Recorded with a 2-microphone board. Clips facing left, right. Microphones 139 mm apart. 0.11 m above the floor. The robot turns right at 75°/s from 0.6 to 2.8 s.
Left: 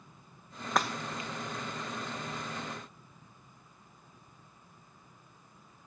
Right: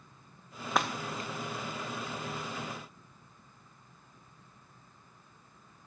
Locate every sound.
0.8 s breaking glass: 5° right (ahead or behind), 0.9 m; by 1.3 s 45° right (ahead or behind), 0.9 m